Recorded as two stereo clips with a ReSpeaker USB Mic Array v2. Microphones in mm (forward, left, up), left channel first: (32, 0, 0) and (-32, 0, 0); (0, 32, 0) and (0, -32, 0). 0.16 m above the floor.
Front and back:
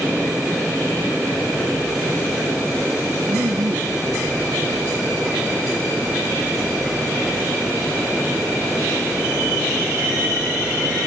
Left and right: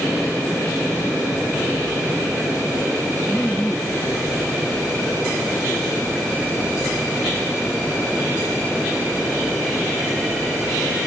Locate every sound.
3.3 s laughter: straight behind